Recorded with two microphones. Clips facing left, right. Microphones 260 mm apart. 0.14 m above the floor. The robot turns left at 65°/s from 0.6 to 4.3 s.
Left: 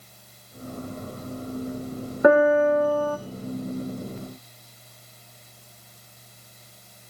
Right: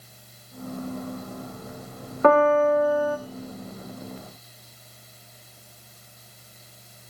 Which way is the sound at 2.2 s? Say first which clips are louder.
Left 1 dB; 15° left (ahead or behind).